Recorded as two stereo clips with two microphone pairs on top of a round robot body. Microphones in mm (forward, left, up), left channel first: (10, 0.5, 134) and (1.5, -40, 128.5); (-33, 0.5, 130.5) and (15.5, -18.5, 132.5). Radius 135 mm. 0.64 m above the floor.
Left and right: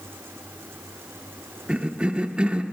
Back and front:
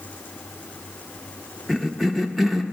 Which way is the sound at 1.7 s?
110° right.